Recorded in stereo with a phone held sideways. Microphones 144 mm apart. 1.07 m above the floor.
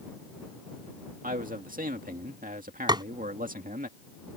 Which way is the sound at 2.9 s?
30° right (ahead or behind).